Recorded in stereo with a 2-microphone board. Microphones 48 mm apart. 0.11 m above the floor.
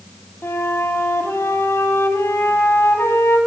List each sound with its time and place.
0.4 s a flute: 60° left (ahead or behind), 2 m